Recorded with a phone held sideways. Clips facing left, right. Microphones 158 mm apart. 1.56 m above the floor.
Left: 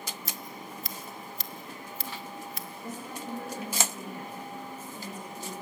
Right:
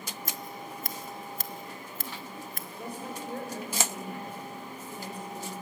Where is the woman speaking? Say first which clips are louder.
Right 2 dB; 65° right (ahead or behind), 6.5 m.